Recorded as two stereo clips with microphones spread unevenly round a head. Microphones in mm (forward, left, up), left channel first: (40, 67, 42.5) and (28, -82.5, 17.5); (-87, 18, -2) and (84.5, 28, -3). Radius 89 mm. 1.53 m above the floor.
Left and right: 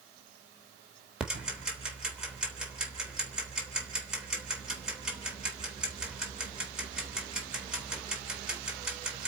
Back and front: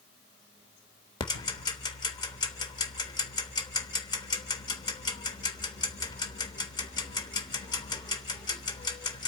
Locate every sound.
1.2 s ticking: 165° left, 1.3 m